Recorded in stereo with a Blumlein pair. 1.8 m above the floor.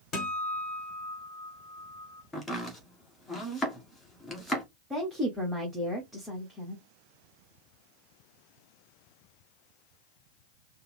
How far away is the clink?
I don't hear a clink.